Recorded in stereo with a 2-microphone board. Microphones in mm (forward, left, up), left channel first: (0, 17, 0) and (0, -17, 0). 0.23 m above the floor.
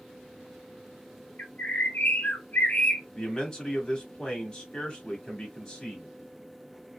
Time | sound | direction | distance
1.4 | a bird | 65° left (ahead or behind) | 0.9 m
3.1 | a man speaking | 25° left (ahead or behind) | 1.2 m